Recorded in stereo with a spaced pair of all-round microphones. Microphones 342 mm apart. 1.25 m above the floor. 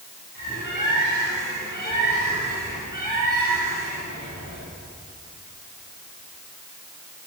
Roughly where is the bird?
Right.